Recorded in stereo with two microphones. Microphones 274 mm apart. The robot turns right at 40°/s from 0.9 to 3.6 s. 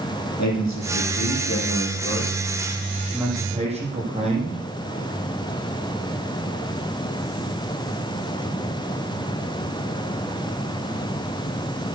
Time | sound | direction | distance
0.4 | a man speaking | 95° left | 7 m